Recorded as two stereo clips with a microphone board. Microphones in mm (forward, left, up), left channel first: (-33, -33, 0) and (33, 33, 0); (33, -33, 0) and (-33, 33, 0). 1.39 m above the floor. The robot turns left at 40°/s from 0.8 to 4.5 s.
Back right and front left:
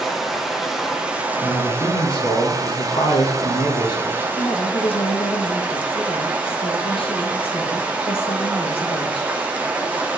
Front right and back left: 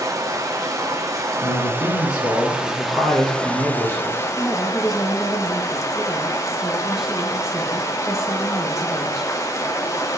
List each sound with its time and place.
0.0 s running water: 130° left, 1.0 m; by 10.2 s 20° right, 1.0 m
1.4 s a man speaking: 70° right, 1.9 m; by 4.3 s 175° left, 1.9 m
4.4 s a woman speaking: 135° right, 1.4 m; by 9.3 s 140° right, 1.4 m